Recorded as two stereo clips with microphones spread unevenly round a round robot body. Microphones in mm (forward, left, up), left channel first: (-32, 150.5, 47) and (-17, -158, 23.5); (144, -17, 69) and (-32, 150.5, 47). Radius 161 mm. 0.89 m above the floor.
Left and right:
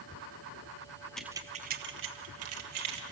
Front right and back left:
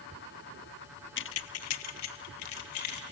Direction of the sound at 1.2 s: 5° left.